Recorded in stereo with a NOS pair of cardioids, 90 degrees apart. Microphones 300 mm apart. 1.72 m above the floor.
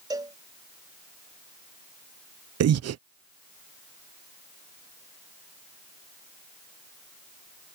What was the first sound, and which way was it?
A cowbell, 15° right.